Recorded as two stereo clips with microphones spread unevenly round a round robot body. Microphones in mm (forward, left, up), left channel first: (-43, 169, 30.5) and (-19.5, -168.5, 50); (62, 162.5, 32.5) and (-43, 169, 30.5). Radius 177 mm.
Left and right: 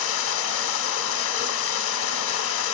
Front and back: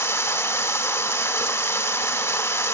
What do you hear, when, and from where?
0.0 s running water: 60° left, 0.8 m